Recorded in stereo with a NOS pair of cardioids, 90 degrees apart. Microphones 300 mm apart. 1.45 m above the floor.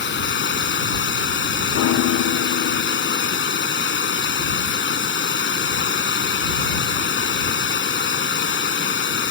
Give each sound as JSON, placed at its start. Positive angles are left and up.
{"t": 0.0, "sound": "running water", "azimuth_deg": 40}
{"t": 1.7, "sound": "a piano", "azimuth_deg": 65}